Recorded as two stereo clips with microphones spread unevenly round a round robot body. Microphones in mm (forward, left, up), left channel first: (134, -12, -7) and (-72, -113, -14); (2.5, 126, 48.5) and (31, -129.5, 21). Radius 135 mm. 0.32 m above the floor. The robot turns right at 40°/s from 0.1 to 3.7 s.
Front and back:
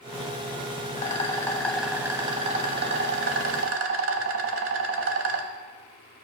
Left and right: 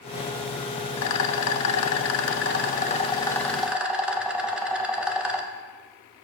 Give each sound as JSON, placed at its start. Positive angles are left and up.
{"t": 1.0, "sound": "a rattle", "azimuth_deg": 85, "distance_m": 0.8}